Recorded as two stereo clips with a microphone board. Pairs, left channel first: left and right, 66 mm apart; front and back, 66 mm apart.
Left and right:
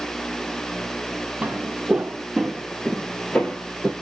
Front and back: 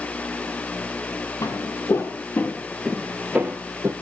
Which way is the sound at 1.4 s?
15° right.